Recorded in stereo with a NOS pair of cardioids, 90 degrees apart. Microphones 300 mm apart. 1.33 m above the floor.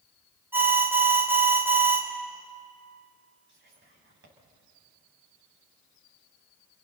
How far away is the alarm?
About 3 m.